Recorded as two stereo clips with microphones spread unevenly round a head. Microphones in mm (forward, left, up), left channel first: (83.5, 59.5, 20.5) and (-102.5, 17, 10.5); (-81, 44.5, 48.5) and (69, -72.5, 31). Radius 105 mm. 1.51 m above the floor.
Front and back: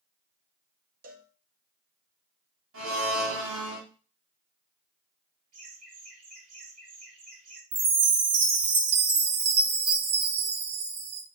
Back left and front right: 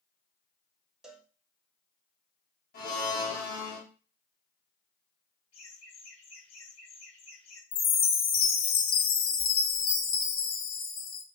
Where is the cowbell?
130° right, 1.1 m.